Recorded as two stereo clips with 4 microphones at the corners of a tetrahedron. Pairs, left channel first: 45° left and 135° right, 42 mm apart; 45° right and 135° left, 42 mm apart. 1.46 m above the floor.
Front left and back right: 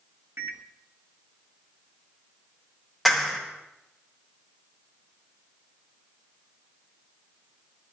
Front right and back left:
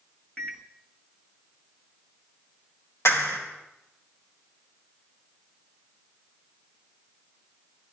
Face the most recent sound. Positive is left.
turn(degrees=-45)